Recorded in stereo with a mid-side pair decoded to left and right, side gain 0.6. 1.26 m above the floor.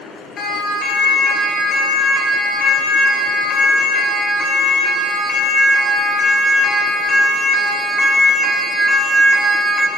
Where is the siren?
45° left, 10 m; by 9.9 s straight ahead, 4.5 m.